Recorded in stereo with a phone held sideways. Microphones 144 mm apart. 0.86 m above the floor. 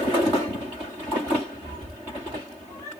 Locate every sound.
1.6 s a cat meowing: 25° left (ahead or behind), 7.5 m